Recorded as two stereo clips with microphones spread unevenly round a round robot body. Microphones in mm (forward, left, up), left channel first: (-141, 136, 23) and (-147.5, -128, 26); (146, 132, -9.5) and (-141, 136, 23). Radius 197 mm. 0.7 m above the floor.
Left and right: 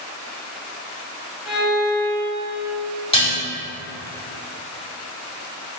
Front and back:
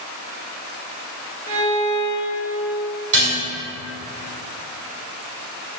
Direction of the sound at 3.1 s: 160° left.